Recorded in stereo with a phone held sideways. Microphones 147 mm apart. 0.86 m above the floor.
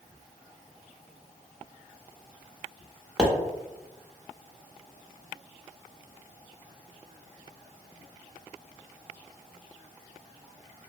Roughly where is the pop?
Centre.